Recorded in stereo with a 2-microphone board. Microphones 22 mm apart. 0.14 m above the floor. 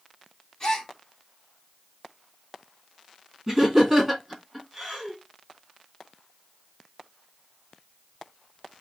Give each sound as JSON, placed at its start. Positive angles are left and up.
{"t": 0.6, "sound": "a gasp", "side_deg": 25, "distance_m": 1.4}
{"t": 3.5, "sound": "laughter", "side_deg": -15, "distance_m": 1.7}